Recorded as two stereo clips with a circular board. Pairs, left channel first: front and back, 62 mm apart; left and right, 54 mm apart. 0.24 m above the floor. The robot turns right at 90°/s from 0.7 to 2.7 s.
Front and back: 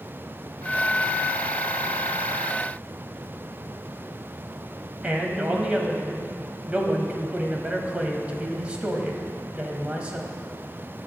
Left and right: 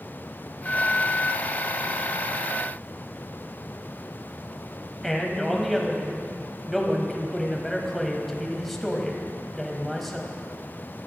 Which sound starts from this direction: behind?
A man speaking, at 5.0 s.